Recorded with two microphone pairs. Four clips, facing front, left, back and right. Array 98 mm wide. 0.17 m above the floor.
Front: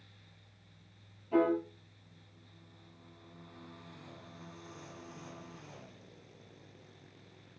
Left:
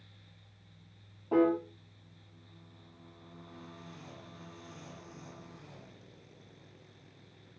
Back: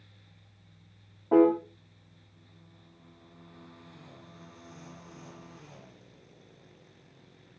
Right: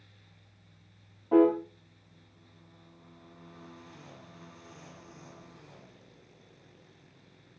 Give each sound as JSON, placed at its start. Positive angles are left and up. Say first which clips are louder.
{"t": 1.3, "sound": "a piano", "louder": "right 5 dB, back 8 dB", "azimuth_deg": 180, "distance_m": 1.2}